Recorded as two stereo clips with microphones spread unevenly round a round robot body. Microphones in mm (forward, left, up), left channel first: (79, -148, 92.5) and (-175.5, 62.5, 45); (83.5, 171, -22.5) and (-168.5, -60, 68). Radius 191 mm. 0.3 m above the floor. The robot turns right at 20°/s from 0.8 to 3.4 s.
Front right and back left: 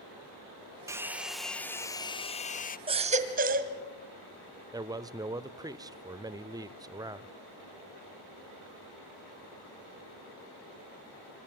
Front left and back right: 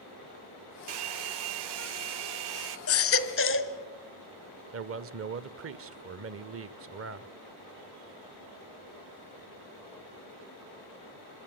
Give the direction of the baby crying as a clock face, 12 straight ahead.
10 o'clock.